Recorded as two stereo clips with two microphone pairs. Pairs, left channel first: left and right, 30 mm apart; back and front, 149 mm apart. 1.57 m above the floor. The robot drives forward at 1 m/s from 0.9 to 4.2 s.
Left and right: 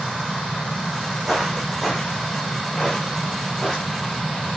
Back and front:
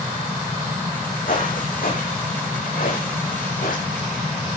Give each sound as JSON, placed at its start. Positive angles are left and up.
{"t": 1.3, "sound": "footsteps", "azimuth_deg": -165, "distance_m": 6.5}